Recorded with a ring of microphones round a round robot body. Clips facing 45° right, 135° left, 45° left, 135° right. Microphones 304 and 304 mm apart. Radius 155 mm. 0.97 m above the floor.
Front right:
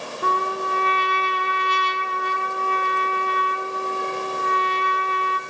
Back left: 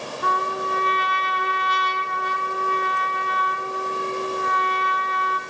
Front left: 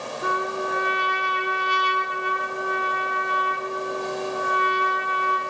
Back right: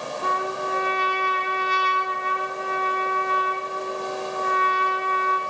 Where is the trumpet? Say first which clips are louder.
Front right 2 dB, front left 3 dB; 20° right, 0.7 m.